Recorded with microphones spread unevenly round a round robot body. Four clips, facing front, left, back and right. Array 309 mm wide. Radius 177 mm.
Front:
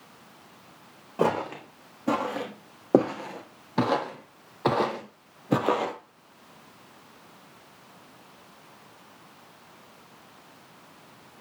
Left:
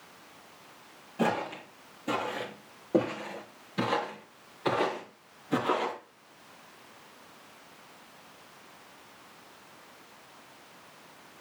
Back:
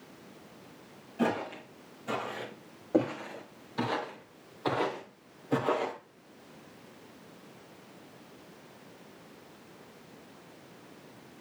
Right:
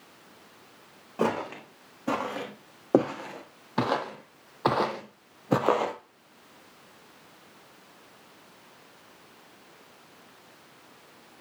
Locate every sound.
1.2 s footsteps: 15° right, 3.5 m; by 6.0 s 40° right, 1.6 m